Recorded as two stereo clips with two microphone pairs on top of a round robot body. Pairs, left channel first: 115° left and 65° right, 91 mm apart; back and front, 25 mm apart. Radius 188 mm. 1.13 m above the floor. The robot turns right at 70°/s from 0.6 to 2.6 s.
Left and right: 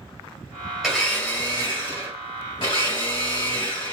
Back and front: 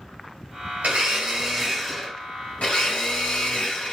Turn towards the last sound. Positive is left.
turn(degrees=145)